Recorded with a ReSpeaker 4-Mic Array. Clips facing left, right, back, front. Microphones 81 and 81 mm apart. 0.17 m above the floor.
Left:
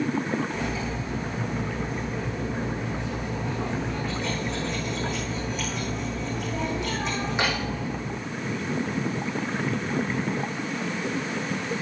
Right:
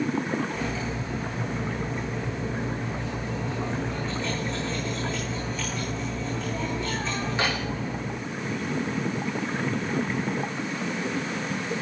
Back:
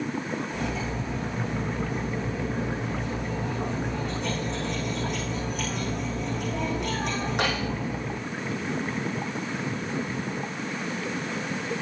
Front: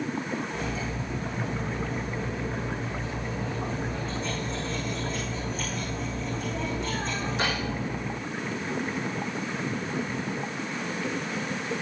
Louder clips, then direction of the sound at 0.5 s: Left 1 dB, back 2 dB; 160° left.